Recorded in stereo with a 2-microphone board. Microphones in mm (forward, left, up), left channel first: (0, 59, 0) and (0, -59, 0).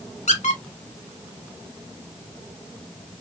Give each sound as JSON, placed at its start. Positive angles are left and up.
{"t": 0.3, "sound": "a squeak", "side_deg": 85, "distance_m": 1.2}